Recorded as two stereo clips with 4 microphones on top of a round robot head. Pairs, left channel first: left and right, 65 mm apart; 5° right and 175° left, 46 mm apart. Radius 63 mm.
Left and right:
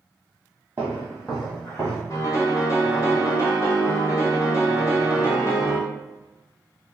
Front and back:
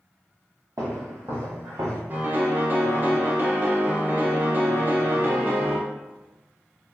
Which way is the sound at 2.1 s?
130° left.